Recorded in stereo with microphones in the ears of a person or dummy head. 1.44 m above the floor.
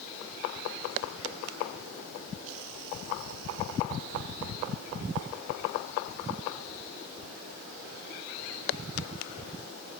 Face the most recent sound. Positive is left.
No sound to turn to.